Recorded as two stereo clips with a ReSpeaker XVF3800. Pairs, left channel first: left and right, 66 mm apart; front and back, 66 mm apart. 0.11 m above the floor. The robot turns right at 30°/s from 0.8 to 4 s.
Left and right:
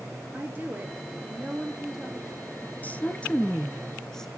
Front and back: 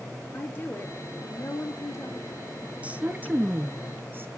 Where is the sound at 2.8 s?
130° left, 1.2 m; by 4.3 s 165° left, 1.2 m.